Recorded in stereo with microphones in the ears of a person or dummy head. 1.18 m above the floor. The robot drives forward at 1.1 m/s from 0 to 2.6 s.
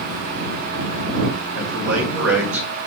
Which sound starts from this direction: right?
A man speaking, at 1.6 s.